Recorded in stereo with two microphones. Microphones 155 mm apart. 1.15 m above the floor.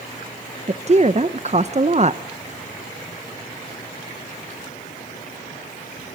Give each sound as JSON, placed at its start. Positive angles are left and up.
{"t": 0.7, "sound": "a woman speaking", "side_deg": -45, "distance_m": 0.9}